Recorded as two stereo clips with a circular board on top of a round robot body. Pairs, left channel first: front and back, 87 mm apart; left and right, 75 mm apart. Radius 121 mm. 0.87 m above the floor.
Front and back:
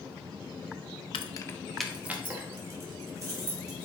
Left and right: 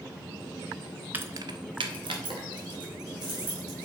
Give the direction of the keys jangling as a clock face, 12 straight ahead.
1 o'clock.